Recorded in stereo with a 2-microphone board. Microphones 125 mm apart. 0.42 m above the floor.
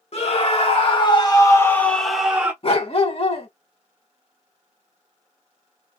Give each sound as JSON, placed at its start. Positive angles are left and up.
{"t": 0.1, "sound": "a scream", "side_deg": 55, "distance_m": 1.6}
{"t": 2.6, "sound": "a dog barking", "side_deg": 50, "distance_m": 1.3}